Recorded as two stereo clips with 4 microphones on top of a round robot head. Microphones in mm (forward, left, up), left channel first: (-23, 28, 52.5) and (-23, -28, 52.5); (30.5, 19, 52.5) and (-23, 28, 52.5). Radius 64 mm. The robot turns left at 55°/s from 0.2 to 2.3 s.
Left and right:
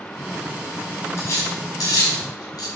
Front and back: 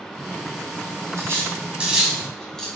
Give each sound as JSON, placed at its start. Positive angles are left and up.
{"t": 1.2, "sound": "cutlery clinking", "azimuth_deg": 135, "distance_m": 5.0}